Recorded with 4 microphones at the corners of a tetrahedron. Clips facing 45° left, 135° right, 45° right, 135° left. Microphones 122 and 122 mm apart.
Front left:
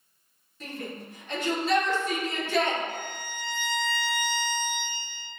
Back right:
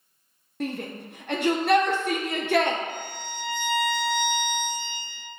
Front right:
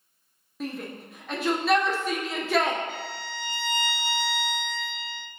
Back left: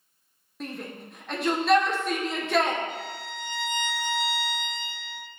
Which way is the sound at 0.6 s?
135° right.